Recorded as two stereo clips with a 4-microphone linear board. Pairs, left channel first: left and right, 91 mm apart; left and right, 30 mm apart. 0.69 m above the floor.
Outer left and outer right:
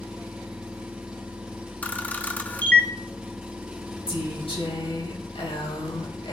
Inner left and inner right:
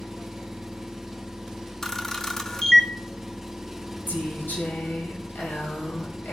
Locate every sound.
0.0 s an engine running: 10° right (ahead or behind), 4 m
1.8 s a camera shutter: 15° left (ahead or behind), 1.2 m
4.1 s a woman speaking: 75° left (ahead or behind), 4.5 m